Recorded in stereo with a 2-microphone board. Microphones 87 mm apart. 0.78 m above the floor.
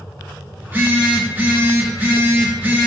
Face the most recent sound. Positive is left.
turn(degrees=-25)  # may be behind; listen again after turning